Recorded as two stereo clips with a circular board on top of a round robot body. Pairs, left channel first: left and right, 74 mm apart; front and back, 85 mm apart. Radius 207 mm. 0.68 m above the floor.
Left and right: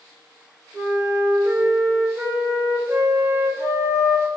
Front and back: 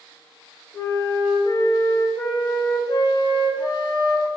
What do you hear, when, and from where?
0.7 s a flute: 35° right, 1.1 m